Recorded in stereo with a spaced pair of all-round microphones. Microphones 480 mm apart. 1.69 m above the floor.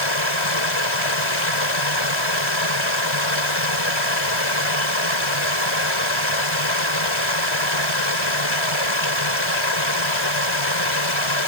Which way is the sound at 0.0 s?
70° left (ahead or behind).